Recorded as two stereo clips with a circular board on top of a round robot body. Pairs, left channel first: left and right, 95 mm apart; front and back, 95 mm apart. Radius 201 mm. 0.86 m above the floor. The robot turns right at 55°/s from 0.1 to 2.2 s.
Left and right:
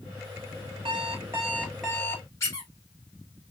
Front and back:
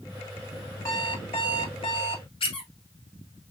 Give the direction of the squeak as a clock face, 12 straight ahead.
11 o'clock.